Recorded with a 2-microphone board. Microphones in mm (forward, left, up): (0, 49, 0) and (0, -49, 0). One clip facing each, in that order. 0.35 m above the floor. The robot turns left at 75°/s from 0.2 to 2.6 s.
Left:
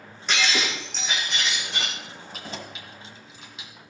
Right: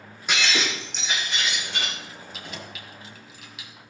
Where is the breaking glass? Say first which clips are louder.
Even; 170° right, 9 m; by 1.9 s 65° left, 9 m.